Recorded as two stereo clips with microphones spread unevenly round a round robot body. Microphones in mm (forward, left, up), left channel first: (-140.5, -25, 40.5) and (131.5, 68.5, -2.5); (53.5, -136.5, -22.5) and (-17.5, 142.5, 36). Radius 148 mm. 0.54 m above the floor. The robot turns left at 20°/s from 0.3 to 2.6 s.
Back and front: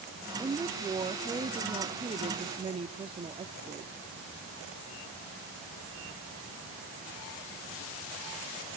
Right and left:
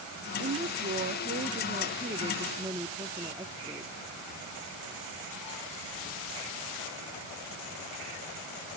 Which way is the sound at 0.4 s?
65° left.